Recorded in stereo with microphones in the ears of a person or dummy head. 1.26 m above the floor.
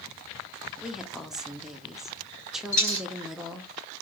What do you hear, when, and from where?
0.8 s a woman speaking: centre (ahead or behind), 0.5 m
2.7 s a dropped coin: 40° left (ahead or behind), 1.5 m